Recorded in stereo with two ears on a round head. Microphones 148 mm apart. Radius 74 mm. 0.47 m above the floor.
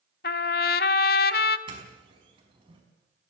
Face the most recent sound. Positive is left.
turn(degrees=-30)  # may be behind; listen again after turning